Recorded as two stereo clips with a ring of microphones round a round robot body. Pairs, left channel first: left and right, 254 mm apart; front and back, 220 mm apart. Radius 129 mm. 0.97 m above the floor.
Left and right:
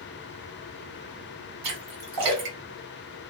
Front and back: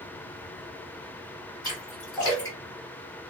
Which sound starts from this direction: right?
A splash, at 1.6 s.